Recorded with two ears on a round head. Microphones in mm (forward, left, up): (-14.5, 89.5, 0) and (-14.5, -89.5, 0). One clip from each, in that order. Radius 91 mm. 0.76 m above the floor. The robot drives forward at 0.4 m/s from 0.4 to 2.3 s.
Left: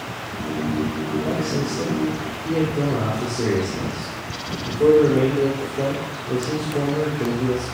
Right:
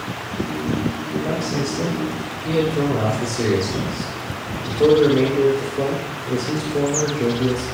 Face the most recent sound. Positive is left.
turn(degrees=-40)  # may be behind; listen again after turning